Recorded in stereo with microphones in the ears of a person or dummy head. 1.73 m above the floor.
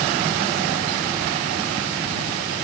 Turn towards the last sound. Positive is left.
No sound to turn to.